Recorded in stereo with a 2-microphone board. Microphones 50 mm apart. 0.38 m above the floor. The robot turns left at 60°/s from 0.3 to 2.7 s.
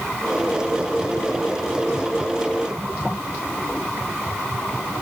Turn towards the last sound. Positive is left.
No sound to turn to.